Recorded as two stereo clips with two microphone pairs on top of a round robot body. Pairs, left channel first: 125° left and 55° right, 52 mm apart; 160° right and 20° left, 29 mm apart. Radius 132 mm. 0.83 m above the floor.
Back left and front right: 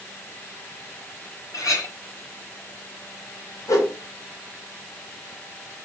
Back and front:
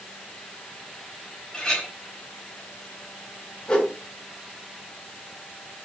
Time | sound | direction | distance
1.5 | a clink | 135° left | 4 m
3.7 | a whoosh | 140° left | 3.5 m